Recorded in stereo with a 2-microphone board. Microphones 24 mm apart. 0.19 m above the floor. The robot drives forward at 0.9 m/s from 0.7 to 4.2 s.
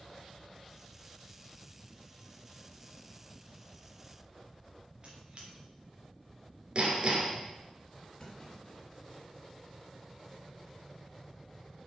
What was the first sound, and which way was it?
A squeak, 40° right (ahead or behind).